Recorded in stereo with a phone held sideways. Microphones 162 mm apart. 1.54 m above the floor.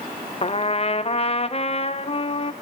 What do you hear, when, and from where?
0.4 s a trumpet: 40° left (ahead or behind), 0.7 m